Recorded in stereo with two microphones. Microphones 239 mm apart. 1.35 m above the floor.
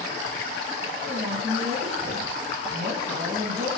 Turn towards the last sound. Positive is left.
turn(degrees=-45)  # may be behind; listen again after turning